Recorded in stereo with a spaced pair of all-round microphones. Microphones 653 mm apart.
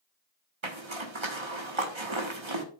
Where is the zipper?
45° right (ahead or behind), 1.5 m.